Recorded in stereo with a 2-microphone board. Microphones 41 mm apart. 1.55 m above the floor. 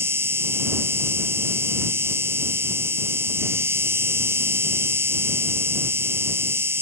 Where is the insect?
80° right.